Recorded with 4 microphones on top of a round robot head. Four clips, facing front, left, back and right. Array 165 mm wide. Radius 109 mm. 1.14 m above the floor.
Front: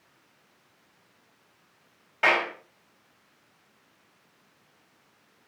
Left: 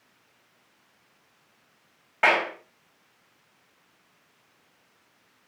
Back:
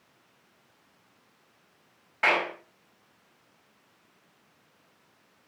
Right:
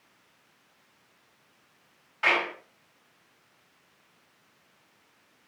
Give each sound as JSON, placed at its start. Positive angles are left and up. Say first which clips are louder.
{"t": 2.2, "sound": "a clap", "louder": "left 5 dB, front 2 dB", "azimuth_deg": 65, "distance_m": 5.0}